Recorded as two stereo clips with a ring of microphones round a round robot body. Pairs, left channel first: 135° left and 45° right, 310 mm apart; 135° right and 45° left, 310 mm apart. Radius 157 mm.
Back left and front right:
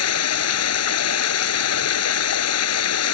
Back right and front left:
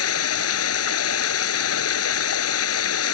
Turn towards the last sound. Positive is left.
turn(degrees=180)